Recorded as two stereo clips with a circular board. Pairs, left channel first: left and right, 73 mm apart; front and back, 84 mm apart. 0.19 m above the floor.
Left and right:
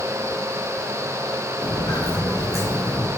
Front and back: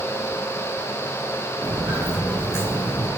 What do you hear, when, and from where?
1.6 s footsteps: 115° left, 3.5 m; by 3.1 s 130° left, 5 m